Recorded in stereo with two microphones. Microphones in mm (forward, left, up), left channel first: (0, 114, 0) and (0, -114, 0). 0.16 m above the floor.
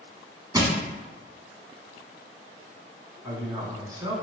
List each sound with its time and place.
0.5 s crushing: 15° right (ahead or behind), 0.8 m
3.2 s a man speaking: 15° right (ahead or behind), 1.4 m